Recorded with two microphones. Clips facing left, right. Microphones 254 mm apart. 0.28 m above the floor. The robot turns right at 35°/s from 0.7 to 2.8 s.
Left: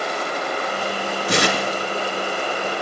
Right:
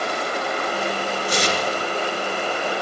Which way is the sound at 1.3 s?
75° left (ahead or behind).